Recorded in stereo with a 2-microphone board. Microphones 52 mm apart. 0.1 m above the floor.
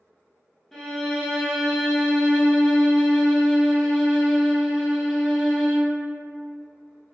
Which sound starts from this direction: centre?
A violin, at 0.7 s.